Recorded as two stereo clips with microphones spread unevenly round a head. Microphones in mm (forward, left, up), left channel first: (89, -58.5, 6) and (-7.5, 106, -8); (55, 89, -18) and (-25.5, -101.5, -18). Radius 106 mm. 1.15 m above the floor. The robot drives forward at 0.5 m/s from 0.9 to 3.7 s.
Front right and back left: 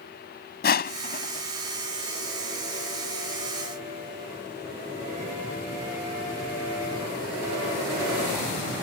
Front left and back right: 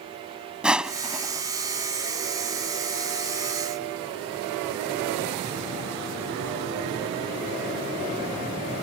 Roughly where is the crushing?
Ahead right.